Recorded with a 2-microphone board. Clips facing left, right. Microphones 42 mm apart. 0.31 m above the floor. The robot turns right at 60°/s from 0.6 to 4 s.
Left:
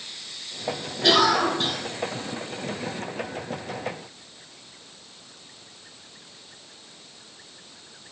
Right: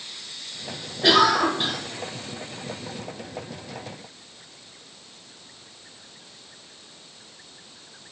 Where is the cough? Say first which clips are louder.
Right 2 dB; 5° right (ahead or behind), 0.9 m; by 1.8 s 20° right (ahead or behind), 0.9 m.